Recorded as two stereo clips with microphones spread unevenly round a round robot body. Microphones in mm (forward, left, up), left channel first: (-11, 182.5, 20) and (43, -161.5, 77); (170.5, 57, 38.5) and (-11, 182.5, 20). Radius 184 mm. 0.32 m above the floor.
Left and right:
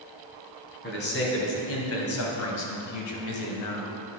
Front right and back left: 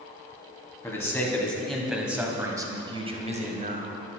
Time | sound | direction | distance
0.8 | a man speaking | 45° left | 2.5 m